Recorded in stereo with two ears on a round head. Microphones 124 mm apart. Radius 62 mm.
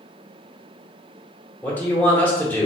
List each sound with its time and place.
1.6 s a man speaking: 15° left (ahead or behind), 1.0 m